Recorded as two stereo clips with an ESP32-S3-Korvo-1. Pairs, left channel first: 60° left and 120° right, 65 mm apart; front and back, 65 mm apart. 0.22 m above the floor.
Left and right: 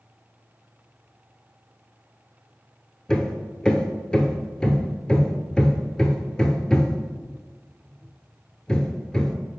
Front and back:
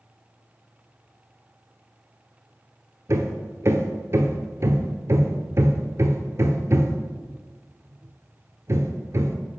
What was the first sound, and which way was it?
Hammering, 135° left.